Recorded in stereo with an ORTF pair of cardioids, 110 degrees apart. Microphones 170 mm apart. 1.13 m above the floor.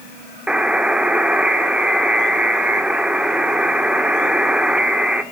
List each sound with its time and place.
0.5 s a buzzer: 5° right, 1.9 m